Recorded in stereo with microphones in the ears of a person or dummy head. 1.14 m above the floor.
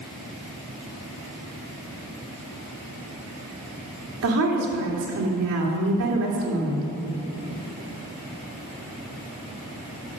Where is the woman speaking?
75° right (ahead or behind), 2.5 m.